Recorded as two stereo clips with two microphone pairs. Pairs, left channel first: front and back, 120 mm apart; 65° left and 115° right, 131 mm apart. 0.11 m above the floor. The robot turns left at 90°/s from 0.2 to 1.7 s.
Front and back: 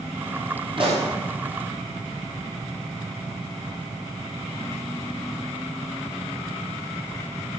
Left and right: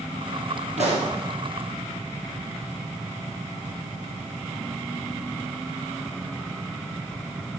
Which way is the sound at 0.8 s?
135° right.